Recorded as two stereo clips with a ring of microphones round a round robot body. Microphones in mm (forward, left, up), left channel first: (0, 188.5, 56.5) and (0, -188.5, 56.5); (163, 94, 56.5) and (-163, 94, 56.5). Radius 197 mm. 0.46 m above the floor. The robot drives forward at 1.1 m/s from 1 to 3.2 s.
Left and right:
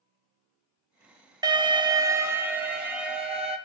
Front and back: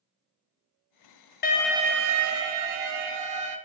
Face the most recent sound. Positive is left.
turn(degrees=-175)